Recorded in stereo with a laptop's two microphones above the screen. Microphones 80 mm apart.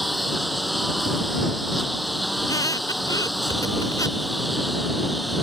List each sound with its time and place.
0.0 s a lawn mower: centre (ahead or behind)
2.4 s a squeak: 45° left (ahead or behind)